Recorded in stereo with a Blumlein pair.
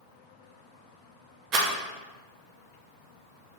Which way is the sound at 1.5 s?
30° right.